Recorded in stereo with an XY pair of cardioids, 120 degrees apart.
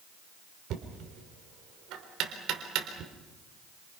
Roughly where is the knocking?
Right.